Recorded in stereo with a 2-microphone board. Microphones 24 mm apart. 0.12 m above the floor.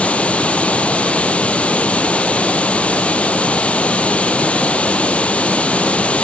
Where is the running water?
65° left (ahead or behind), 1.1 m.